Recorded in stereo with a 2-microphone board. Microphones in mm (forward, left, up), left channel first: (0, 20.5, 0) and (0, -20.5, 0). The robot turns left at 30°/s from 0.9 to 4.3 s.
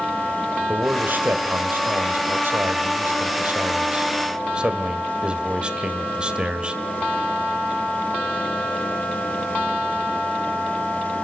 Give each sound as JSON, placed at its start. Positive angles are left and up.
{"t": 0.7, "sound": "a man speaking", "azimuth_deg": -50, "distance_m": 2.0}